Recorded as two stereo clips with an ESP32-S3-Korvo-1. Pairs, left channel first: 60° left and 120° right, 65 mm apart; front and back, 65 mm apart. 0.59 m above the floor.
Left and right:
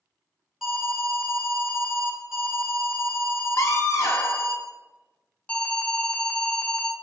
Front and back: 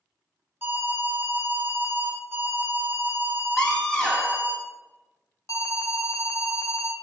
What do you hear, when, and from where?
0.6 s an alarm: 165° left, 1.8 m
3.6 s a scream: 75° left, 1.0 m
5.5 s an alarm: 10° right, 0.9 m